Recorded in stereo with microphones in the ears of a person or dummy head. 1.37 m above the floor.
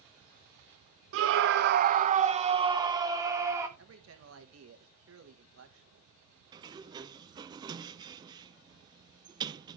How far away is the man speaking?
About 1.6 m.